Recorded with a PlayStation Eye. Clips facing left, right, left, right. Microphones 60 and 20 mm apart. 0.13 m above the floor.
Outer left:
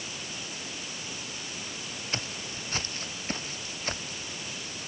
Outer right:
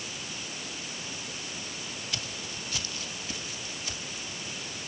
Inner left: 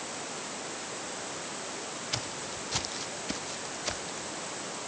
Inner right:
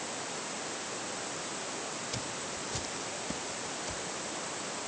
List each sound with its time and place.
2.1 s footsteps: 35° left (ahead or behind); by 4.3 s 45° left (ahead or behind)